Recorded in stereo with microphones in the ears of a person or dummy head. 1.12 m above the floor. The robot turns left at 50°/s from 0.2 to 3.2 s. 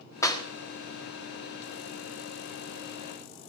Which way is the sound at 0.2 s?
15° left (ahead or behind).